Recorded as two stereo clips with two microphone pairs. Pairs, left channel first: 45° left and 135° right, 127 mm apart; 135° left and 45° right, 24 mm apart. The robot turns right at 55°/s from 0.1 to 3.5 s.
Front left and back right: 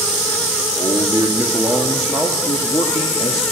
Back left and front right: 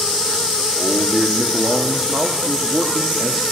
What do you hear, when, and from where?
0.8 s a man speaking: 100° right, 1.4 m; by 3.4 s 45° left, 1.4 m